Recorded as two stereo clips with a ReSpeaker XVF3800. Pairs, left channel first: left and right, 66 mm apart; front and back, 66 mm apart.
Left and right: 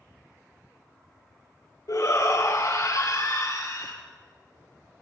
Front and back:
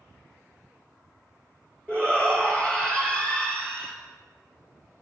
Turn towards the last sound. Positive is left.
turn(degrees=75)